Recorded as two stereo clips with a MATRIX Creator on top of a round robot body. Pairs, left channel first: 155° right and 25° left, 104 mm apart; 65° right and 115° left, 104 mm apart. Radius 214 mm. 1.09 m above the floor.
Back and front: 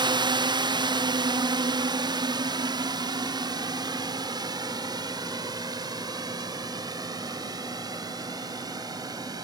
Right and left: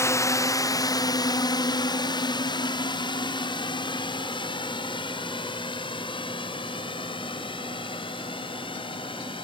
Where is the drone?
10° right; by 9.4 s 30° right.